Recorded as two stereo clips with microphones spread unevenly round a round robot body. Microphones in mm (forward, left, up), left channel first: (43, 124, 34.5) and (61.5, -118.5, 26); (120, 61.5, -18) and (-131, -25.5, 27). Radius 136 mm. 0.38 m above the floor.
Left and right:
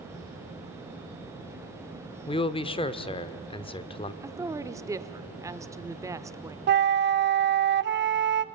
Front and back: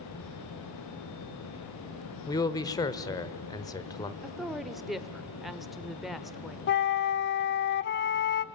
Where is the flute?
35° right, 0.6 m.